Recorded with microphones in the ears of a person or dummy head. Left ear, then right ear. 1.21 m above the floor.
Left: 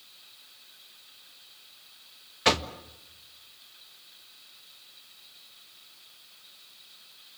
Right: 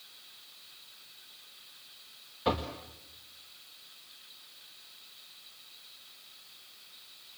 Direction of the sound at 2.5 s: 60° left (ahead or behind).